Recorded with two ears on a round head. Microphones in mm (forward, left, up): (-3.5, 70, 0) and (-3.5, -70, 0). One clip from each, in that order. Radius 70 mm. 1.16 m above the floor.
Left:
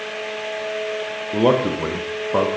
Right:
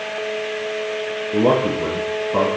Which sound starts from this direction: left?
A man speaking, at 1.3 s.